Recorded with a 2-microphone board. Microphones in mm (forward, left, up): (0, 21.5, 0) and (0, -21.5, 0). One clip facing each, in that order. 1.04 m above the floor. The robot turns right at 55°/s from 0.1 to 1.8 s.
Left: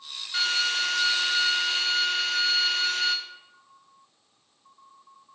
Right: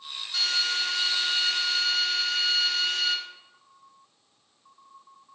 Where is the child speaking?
No child speaking in this recording.